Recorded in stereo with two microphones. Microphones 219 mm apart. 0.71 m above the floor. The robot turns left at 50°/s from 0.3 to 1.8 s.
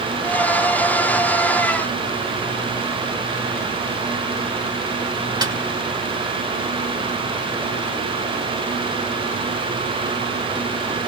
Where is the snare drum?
20° right (ahead or behind), 2.5 m.